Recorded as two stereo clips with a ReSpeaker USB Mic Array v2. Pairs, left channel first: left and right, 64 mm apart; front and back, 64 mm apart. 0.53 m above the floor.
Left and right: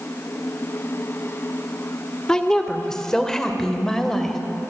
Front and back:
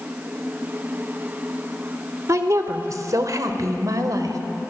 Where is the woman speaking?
165° left, 1.7 m; by 4.4 s 175° left, 2.5 m.